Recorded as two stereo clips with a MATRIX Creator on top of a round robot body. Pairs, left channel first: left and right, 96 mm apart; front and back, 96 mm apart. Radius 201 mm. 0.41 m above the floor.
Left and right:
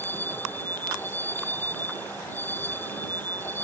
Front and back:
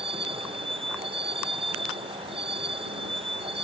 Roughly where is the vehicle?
Behind.